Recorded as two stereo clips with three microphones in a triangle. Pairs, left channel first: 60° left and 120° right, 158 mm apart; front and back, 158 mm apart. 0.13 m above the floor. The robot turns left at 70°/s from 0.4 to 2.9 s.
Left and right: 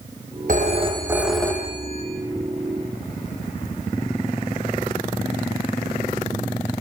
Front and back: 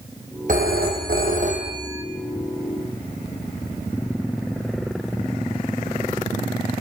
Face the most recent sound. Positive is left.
turn(degrees=40)